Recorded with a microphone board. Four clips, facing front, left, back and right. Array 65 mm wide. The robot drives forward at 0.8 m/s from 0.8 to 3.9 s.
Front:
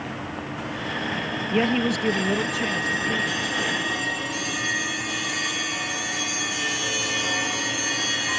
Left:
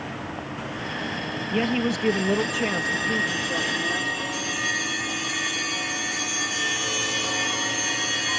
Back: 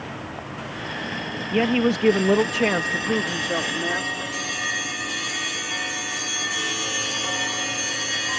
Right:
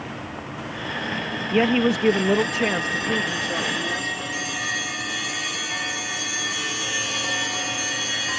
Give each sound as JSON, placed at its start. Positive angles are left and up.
{"t": 1.5, "sound": "a woman speaking", "azimuth_deg": -85}